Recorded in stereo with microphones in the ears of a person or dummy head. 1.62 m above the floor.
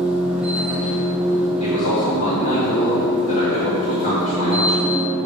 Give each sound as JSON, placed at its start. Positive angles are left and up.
{"t": 0.0, "sound": "a machine running", "side_deg": -10, "distance_m": 0.8}
{"t": 1.6, "sound": "a man speaking", "side_deg": 50, "distance_m": 1.9}